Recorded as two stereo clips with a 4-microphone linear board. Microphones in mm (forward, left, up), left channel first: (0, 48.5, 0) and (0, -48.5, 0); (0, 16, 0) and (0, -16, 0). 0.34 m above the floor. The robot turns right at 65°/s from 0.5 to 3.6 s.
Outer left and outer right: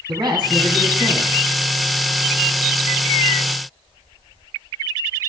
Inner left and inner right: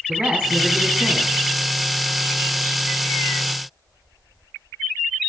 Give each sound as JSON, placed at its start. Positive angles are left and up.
{"t": 0.1, "sound": "a man speaking", "azimuth_deg": -120, "distance_m": 2.0}